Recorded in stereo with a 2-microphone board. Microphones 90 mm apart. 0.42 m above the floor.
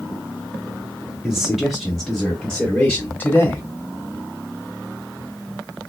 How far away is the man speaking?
About 1.4 m.